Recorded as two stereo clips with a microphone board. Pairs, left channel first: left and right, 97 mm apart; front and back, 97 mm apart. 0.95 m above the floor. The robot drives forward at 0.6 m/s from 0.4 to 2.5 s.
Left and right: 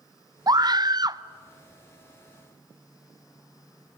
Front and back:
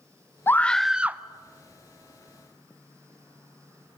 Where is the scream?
60° right, 0.6 m; by 1.2 s 120° right, 0.6 m.